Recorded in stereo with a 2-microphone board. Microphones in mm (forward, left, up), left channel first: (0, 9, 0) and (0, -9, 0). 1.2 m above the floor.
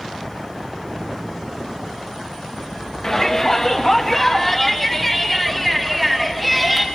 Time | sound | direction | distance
3.0 | a shout | 30° left (ahead or behind) | 2.0 m